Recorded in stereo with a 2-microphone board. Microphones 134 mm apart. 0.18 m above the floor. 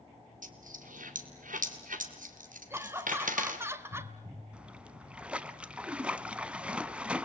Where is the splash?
10° right (ahead or behind), 0.8 m.